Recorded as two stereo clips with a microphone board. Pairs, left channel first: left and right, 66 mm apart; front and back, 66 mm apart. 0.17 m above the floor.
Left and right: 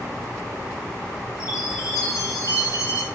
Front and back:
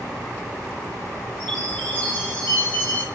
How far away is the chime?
About 3.5 m.